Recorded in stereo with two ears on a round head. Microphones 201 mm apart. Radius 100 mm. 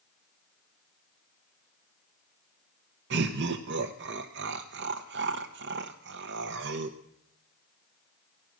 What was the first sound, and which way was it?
Laughter, 55° right (ahead or behind).